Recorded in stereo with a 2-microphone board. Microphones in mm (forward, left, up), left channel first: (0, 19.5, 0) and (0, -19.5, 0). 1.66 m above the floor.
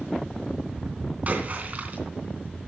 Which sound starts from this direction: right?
A splash, at 1.3 s.